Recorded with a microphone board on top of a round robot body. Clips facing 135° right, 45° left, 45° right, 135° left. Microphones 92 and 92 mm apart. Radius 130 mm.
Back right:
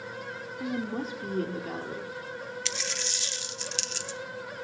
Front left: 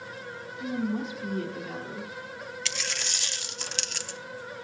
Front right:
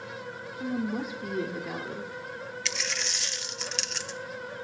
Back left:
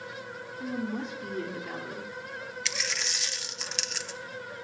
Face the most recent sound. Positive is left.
turn(degrees=45)